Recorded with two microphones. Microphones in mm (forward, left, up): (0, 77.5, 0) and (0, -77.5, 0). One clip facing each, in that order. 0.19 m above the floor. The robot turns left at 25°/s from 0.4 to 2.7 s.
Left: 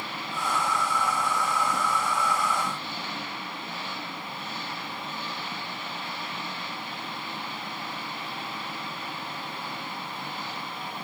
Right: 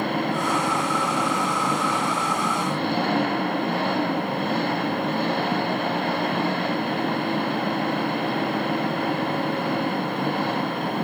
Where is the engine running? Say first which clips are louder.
Right 10 dB; 60° right; by 11.1 s 120° right.